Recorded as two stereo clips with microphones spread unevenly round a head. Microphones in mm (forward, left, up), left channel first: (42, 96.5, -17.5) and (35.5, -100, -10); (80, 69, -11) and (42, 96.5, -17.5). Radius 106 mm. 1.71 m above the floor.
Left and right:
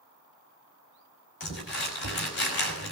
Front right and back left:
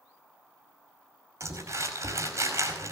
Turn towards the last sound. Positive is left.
turn(degrees=125)